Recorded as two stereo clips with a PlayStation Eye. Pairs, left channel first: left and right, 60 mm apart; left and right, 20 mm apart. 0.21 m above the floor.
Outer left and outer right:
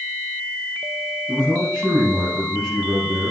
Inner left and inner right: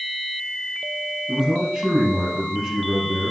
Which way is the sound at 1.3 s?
10° right (ahead or behind).